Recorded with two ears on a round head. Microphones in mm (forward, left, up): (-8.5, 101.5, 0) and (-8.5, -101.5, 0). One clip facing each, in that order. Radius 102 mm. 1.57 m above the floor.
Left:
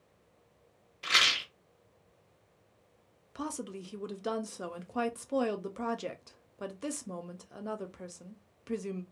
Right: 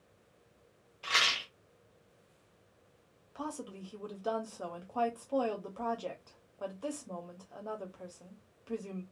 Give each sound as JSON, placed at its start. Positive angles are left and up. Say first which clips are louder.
{"t": 1.0, "sound": "a rattle", "louder": "left 1 dB", "side_deg": 25, "distance_m": 0.8}
{"t": 3.4, "sound": "a woman speaking", "louder": "left 3 dB", "side_deg": 25, "distance_m": 0.5}